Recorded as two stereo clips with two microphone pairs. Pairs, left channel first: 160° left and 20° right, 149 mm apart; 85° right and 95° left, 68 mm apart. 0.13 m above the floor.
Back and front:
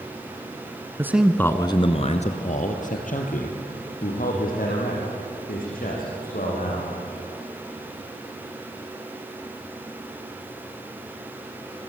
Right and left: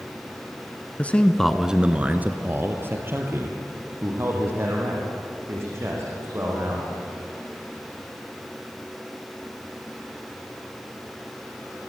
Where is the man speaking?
65° right, 1.2 m; by 6.9 s 140° left, 8 m.